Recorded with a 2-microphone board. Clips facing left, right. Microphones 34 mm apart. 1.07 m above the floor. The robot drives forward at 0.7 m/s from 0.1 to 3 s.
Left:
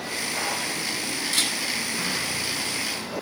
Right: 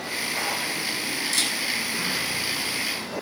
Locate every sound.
1.3 s a camera shutter: 30° left (ahead or behind), 8 m